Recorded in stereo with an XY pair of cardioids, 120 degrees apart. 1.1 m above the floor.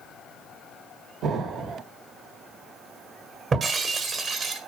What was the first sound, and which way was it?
An explosion, 65° right.